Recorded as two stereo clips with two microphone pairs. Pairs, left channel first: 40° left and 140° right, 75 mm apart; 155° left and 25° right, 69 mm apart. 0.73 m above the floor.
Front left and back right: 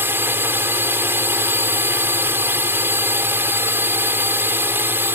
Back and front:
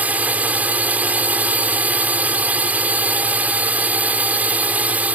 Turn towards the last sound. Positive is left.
turn(degrees=-90)